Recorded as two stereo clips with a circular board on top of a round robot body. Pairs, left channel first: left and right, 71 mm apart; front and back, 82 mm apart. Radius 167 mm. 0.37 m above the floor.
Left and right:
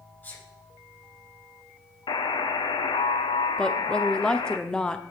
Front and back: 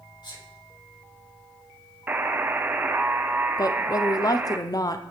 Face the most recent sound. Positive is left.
turn(degrees=15)